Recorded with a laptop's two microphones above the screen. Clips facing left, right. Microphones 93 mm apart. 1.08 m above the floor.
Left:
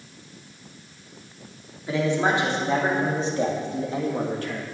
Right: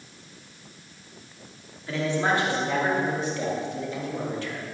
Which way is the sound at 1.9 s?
15° left (ahead or behind).